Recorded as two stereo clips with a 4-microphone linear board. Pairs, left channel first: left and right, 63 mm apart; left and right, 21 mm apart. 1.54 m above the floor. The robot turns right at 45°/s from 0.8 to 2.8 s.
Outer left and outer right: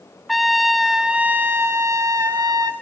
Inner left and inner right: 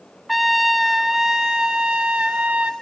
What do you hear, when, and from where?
0.3 s a trumpet: straight behind, 0.5 m; by 2.7 s 95° right, 0.5 m